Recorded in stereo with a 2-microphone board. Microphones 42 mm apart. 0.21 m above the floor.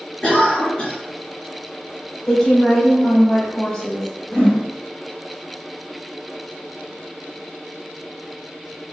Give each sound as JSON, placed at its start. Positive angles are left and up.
{"t": 0.2, "sound": "a cough", "side_deg": 25, "distance_m": 1.3}
{"t": 2.3, "sound": "a woman speaking", "side_deg": 10, "distance_m": 1.0}
{"t": 4.3, "sound": "a whoosh", "side_deg": 15, "distance_m": 1.6}